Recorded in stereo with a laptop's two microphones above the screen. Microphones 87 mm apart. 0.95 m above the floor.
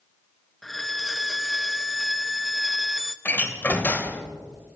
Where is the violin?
Centre (ahead or behind), 0.6 m.